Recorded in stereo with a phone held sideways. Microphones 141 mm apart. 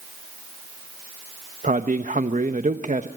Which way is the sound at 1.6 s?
60° right (ahead or behind).